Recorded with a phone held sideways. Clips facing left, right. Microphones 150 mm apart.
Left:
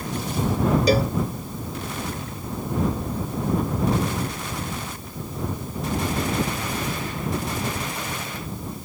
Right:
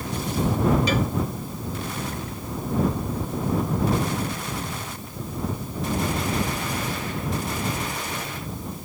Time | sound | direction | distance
0.9 | a cowbell | 40° left (ahead or behind) | ?